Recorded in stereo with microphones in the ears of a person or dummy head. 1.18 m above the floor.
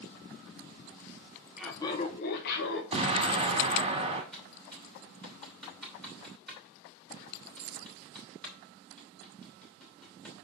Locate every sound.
1.6 s laughter: centre (ahead or behind), 0.7 m; by 2.8 s 70° left (ahead or behind), 1.5 m
2.9 s an explosion: 30° right (ahead or behind), 1.7 m
4.3 s typing on a keyboard: centre (ahead or behind), 3 m